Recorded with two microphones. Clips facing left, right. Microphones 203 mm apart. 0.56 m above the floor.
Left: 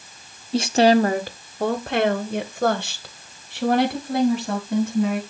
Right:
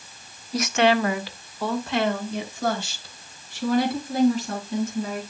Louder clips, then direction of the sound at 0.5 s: Left 5 dB; 25° left (ahead or behind).